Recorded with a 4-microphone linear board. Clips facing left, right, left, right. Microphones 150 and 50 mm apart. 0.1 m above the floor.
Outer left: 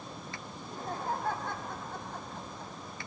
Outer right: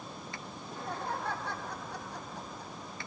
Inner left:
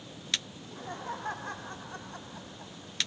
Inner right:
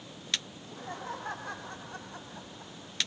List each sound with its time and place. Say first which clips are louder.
0.6 s laughter: outer left 1 dB, even; 45° left (ahead or behind), 6 m; by 2.9 s 60° left (ahead or behind), 6 m